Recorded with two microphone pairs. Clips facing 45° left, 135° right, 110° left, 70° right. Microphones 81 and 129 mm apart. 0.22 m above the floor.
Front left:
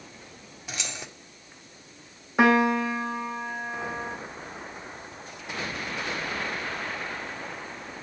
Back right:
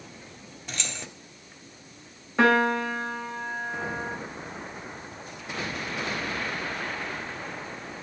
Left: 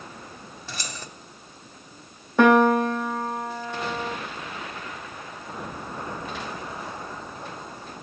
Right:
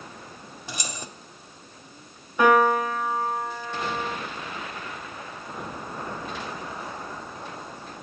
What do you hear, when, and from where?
0.7 s keys jangling: 30° right, 1.1 m
2.4 s a piano: 125° left, 1.8 m